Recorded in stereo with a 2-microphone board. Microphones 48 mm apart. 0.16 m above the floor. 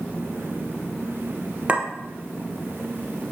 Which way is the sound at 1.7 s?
25° right (ahead or behind).